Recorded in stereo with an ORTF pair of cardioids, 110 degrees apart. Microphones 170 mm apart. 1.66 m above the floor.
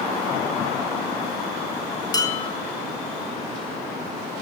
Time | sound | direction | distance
2.1 | dishes clattering | 25° left | 2.5 m